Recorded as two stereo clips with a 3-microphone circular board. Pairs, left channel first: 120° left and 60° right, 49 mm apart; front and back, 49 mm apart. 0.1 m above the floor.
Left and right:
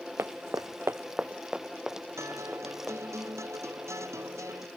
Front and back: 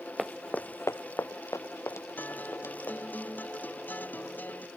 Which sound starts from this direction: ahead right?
A guitar, at 2.2 s.